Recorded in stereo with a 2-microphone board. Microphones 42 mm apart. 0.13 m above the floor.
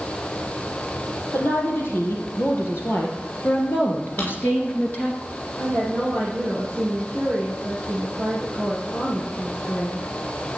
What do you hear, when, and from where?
1.3 s a woman speaking: 65° left (ahead or behind), 4.5 m; by 5.2 s 40° left (ahead or behind), 2 m
4.2 s a drawer: 50° left (ahead or behind), 6 m
5.5 s a woman speaking: 30° left (ahead or behind), 5 m